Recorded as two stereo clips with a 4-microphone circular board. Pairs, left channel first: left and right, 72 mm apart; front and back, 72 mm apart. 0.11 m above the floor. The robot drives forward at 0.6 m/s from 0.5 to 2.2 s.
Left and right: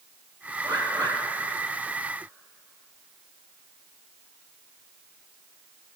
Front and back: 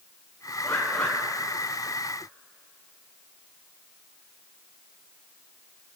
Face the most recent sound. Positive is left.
turn(degrees=-100)